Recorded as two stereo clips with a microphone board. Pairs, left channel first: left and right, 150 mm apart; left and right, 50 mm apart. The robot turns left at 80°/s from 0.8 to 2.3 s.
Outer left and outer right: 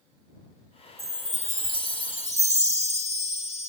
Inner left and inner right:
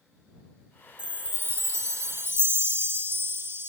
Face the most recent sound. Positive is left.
turn(degrees=-125)